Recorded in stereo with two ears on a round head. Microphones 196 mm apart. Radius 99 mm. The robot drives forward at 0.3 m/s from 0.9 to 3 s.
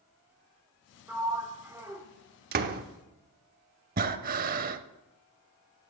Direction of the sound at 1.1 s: 10° right (ahead or behind).